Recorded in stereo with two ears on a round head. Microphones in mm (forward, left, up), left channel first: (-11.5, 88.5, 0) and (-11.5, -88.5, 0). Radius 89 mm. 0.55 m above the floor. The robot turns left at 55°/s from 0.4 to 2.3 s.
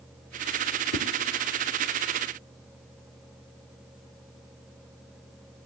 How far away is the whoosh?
About 0.8 m.